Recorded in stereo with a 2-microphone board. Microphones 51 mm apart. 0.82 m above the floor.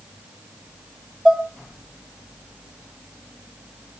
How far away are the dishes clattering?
About 1.4 m.